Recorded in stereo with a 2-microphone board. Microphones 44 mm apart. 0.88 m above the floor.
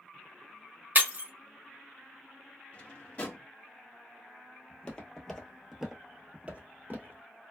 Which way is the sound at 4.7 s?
20° left (ahead or behind).